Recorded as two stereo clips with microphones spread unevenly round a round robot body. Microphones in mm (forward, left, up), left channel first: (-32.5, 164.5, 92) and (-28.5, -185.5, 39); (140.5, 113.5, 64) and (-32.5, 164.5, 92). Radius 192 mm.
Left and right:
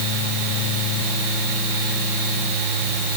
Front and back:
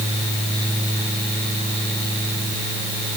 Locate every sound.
Only background noise.